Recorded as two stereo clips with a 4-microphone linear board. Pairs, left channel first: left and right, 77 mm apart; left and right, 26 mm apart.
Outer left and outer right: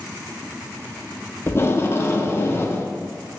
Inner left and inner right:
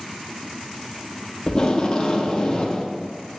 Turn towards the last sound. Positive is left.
turn(degrees=30)  # may be behind; listen again after turning